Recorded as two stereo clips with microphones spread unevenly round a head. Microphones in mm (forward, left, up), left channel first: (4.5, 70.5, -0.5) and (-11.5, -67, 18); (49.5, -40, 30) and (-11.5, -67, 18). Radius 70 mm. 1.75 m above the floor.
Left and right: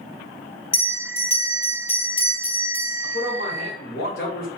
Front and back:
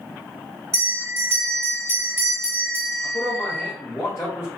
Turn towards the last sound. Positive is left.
turn(degrees=75)